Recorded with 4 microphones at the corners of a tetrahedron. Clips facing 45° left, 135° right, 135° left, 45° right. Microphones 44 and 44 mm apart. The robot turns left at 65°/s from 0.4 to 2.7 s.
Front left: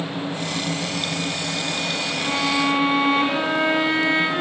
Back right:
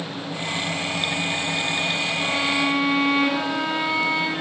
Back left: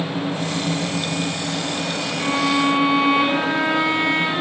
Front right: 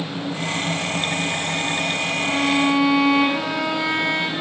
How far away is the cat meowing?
I don't hear a cat meowing.